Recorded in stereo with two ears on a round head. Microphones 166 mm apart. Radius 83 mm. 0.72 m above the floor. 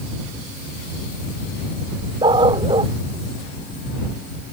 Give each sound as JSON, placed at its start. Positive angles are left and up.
{"t": 2.2, "sound": "a dog barking", "side_deg": -25}